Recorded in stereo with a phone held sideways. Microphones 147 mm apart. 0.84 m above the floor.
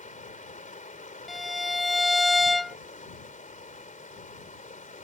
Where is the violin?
Centre (ahead or behind).